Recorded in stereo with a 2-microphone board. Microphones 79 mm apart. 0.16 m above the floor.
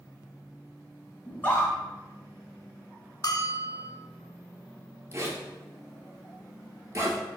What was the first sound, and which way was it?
A scream, 20° left (ahead or behind).